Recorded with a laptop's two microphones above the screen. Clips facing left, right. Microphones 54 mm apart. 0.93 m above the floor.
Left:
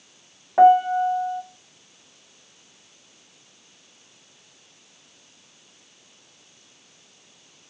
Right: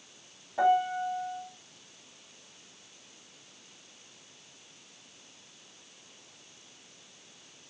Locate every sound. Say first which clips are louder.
0.6 s a piano: left 11 dB; 55° left (ahead or behind), 1.1 m